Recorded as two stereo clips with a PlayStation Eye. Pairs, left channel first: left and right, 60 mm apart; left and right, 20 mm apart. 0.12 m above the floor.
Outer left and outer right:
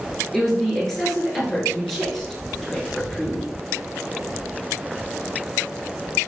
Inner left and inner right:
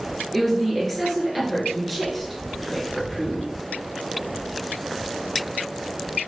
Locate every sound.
0.3 s a woman speaking: 5° left (ahead or behind), 1.6 m